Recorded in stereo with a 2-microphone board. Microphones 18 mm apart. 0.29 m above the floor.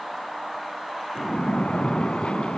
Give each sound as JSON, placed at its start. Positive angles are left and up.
{"t": 1.1, "sound": "a splash", "side_deg": 65, "distance_m": 0.6}